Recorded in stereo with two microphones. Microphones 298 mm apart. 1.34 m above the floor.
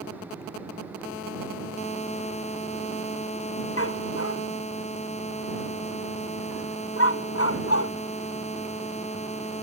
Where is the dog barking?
50° left (ahead or behind).